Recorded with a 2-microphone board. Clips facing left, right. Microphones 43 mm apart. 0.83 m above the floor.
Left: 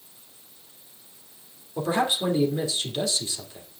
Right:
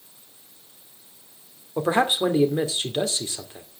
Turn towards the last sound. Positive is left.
turn(degrees=-35)  # may be behind; listen again after turning